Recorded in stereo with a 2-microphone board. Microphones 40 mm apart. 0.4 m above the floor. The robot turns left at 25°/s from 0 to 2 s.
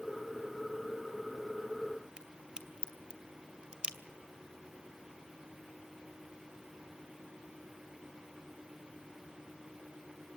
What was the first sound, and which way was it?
A crack, 20° right (ahead or behind).